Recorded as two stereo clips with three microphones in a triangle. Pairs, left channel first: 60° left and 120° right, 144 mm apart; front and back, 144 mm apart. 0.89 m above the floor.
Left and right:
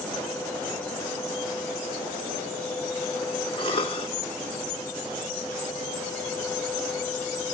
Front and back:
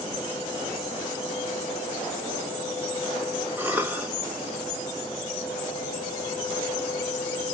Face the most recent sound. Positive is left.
turn(degrees=105)